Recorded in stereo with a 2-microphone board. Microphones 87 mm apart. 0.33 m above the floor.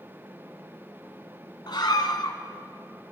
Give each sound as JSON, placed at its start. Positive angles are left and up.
{"t": 1.7, "sound": "a scream", "side_deg": 60, "distance_m": 2.5}